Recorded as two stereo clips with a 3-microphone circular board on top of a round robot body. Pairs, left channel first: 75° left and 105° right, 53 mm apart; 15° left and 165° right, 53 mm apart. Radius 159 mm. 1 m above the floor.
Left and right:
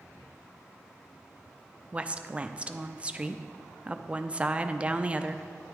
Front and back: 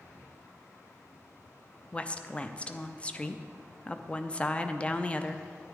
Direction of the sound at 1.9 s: 45° right.